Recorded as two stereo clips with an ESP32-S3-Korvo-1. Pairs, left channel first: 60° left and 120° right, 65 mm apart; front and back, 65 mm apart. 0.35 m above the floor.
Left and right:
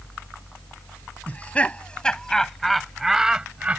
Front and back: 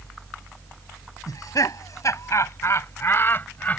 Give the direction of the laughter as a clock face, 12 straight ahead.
12 o'clock.